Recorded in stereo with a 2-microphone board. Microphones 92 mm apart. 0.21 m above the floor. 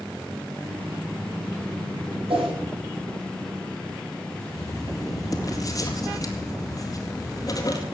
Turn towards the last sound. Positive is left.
turn(degrees=40)  # may be behind; listen again after turning